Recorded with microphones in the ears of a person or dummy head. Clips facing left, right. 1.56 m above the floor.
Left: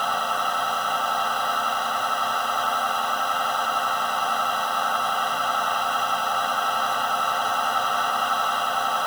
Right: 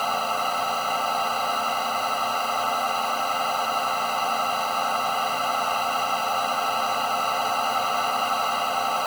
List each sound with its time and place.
0.0 s a machine running: 5° right (ahead or behind)